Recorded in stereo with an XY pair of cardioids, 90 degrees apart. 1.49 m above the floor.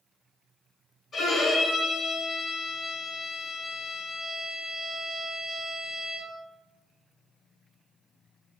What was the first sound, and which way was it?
A violin, 55° left.